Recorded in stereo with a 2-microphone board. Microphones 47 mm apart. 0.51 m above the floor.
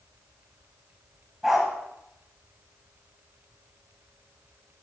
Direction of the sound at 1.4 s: 10° right (ahead or behind).